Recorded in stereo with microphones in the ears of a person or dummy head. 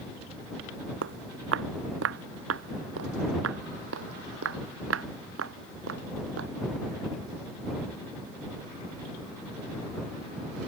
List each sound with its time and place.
1.0 s footsteps: 70° right (ahead or behind); by 6.5 s 80° right